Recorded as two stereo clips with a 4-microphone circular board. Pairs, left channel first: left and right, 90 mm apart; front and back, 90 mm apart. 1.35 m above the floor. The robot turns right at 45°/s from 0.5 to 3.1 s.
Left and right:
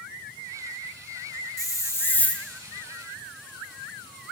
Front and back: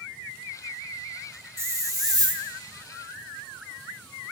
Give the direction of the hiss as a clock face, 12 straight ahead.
8 o'clock.